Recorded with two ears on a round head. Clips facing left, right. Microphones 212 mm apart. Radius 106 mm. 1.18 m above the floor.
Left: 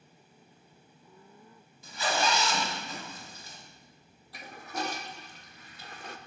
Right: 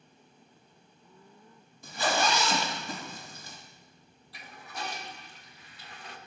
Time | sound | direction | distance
1.8 | a zipper | 45° right (ahead or behind) | 1.4 m
4.3 | a toilet flushing | 40° left (ahead or behind) | 0.6 m